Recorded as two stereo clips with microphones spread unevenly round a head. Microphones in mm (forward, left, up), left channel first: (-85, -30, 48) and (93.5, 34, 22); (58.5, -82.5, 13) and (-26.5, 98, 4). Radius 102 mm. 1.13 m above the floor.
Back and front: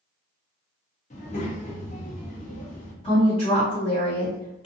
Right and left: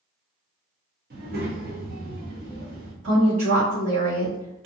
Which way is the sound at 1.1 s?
155° left.